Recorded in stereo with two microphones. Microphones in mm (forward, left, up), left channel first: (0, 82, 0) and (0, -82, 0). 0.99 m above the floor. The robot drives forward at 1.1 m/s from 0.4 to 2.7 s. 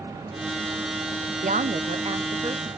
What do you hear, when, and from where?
1.4 s a woman speaking: 50° right (ahead or behind), 0.8 m; by 2.7 s 25° right (ahead or behind), 1.5 m